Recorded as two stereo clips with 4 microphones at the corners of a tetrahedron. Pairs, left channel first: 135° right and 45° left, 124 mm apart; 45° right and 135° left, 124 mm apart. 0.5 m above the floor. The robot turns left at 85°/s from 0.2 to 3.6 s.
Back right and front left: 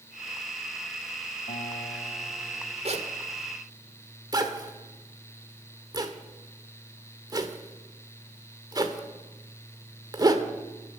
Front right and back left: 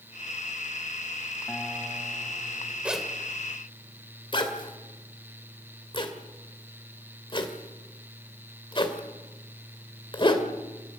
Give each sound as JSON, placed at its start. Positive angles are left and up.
{"t": 1.5, "sound": "a guitar", "azimuth_deg": -125, "distance_m": 2.0}
{"t": 2.9, "sound": "a zipper", "azimuth_deg": 55, "distance_m": 1.9}